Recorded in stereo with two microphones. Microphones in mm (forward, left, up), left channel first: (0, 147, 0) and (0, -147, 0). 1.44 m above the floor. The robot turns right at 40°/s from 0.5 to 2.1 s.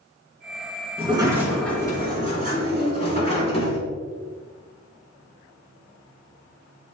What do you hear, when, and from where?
1.0 s a sliding door: 25° right, 3.5 m; by 3.8 s 20° left, 3.5 m